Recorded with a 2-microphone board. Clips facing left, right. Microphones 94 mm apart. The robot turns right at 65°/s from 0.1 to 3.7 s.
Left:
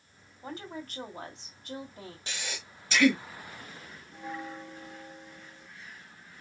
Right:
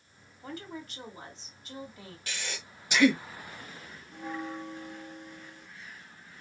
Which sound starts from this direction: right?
A bell, at 4.1 s.